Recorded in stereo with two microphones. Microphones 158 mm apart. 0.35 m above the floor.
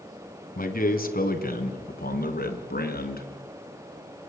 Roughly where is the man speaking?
Left.